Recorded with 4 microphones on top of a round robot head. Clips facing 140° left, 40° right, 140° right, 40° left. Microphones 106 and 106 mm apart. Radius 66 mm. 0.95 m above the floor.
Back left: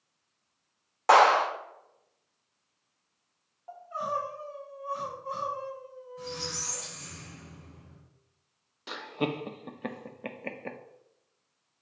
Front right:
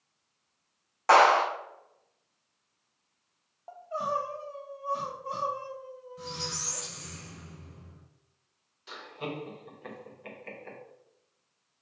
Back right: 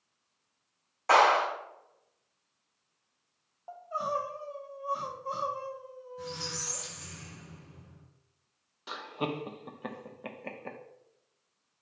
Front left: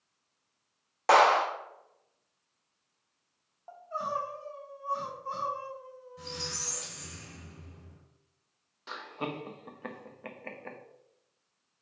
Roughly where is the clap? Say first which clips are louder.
Even, front left 1 dB; ahead left.